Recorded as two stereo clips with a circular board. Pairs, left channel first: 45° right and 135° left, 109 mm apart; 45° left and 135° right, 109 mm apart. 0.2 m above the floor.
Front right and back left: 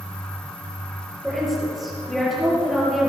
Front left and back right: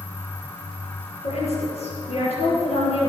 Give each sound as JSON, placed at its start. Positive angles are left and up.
{"t": 1.2, "sound": "a woman speaking", "azimuth_deg": 45, "distance_m": 5.0}